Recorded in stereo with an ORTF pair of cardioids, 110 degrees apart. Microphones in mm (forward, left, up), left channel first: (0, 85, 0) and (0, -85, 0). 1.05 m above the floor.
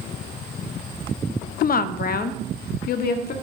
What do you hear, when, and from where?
1.6 s a woman speaking: 60° left, 0.6 m; by 3.3 s 65° left, 1.9 m